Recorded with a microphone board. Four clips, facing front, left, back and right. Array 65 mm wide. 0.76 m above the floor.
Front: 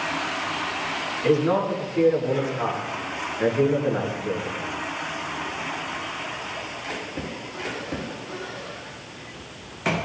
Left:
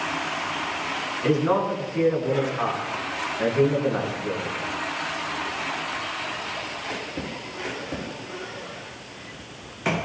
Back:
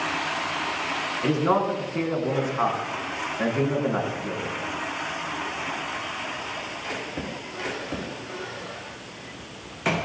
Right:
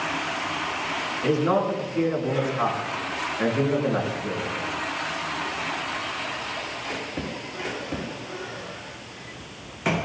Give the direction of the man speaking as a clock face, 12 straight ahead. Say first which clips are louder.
Even, front 2 dB; 7 o'clock.